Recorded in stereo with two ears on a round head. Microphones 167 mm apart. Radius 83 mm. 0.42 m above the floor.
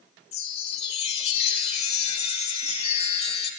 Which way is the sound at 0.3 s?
35° left (ahead or behind).